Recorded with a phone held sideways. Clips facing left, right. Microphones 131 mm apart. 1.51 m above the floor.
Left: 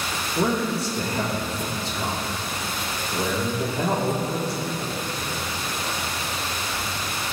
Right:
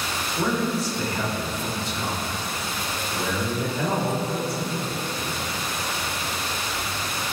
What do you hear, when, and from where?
0.3 s a man speaking: 35° left (ahead or behind), 3 m